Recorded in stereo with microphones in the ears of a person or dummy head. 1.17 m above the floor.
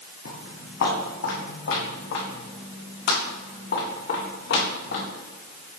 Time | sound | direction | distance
0.2 | footsteps | 55° left (ahead or behind) | 2.5 m